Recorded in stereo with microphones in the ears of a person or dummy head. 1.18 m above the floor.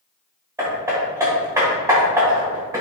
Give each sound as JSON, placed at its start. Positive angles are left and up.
{"t": 0.6, "sound": "hammering", "side_deg": -15, "distance_m": 1.4}